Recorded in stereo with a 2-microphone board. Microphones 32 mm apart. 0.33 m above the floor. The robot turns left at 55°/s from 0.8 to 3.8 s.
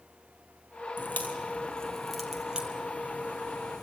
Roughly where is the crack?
Left.